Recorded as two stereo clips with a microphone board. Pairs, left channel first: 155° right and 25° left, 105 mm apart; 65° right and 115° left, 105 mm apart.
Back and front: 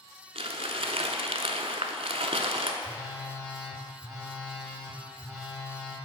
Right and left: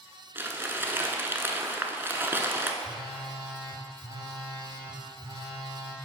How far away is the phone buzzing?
About 1.7 m.